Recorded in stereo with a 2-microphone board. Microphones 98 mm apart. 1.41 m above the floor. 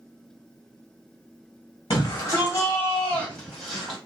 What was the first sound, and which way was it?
A shout, 55° left (ahead or behind).